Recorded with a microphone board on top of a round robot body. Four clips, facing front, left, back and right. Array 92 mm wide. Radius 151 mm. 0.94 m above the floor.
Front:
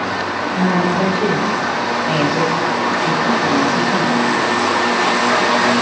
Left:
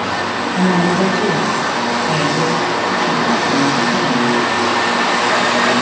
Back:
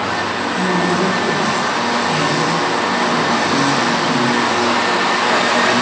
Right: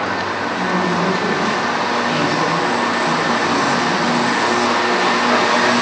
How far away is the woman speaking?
About 6.5 m.